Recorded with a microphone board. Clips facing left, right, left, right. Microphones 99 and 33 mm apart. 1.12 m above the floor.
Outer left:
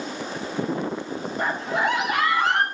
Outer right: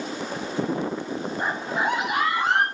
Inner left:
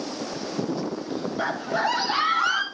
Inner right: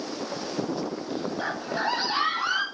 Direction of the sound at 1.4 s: 85° left.